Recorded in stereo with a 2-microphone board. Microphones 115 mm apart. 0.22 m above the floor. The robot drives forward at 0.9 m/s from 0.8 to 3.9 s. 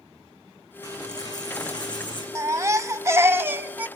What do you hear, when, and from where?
0.8 s a dropped coin: 35° left (ahead or behind), 6.5 m; by 2.2 s 45° left (ahead or behind), 5.5 m
2.4 s a baby crying: 25° right (ahead or behind), 0.8 m; by 3.9 s 15° right (ahead or behind), 1.3 m